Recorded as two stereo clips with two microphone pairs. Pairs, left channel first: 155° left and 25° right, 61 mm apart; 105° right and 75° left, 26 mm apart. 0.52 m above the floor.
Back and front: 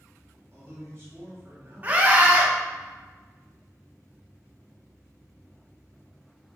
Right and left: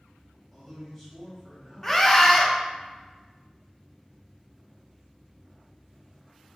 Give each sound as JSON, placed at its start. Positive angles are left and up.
{"t": 0.5, "sound": "a man speaking", "azimuth_deg": -5, "distance_m": 1.6}
{"t": 1.8, "sound": "a scream", "azimuth_deg": -30, "distance_m": 0.8}